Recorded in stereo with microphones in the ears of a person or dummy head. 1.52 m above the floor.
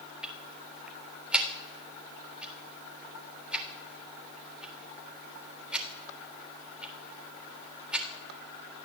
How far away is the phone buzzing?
No phone buzzing in this recording.